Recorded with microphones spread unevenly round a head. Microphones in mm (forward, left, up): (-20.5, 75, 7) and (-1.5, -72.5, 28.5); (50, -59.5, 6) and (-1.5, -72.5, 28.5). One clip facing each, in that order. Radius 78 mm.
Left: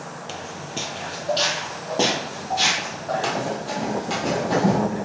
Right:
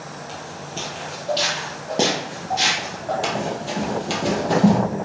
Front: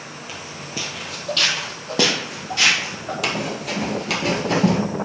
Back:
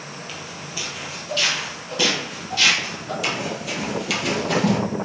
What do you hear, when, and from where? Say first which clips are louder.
0.3 s footsteps: left 2 dB, front 1 dB; 125° left, 1.2 m; by 3.1 s 15° right, 3.5 m
3.2 s running footsteps: right 1 dB, front 2 dB; 20° right, 1.9 m; by 4.8 s 55° right, 2 m